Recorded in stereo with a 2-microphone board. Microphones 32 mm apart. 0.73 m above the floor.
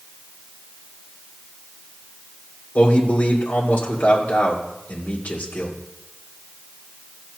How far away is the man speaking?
About 2.5 m.